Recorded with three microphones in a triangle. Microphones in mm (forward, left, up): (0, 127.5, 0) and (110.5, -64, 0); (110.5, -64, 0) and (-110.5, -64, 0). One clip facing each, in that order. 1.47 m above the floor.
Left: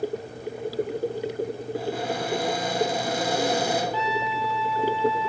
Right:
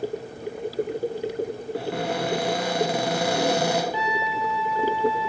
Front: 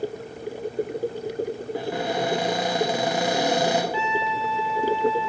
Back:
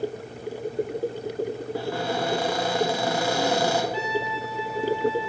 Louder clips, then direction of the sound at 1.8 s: Right 2 dB, front 2 dB; 75° right.